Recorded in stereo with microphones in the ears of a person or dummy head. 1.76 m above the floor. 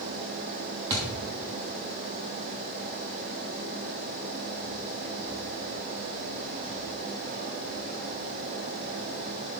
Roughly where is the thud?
Centre.